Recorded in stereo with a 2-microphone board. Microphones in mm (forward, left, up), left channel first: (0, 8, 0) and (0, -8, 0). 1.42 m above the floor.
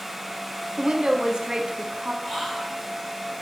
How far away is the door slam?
I don't hear a door slam.